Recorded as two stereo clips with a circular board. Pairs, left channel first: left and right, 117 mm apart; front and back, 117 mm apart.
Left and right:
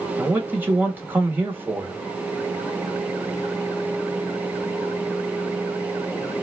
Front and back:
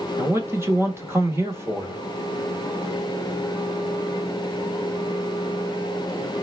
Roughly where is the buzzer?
I don't hear a buzzer.